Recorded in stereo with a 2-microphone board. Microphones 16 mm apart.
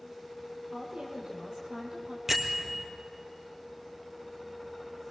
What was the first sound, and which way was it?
A woman speaking, 75° right (ahead or behind).